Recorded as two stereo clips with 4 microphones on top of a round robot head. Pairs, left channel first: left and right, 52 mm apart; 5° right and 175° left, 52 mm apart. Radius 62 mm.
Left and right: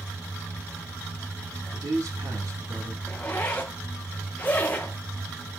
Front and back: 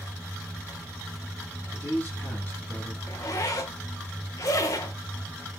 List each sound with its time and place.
1.7 s a man speaking: 65° right, 3.5 m
3.1 s a zipper: 15° left, 0.9 m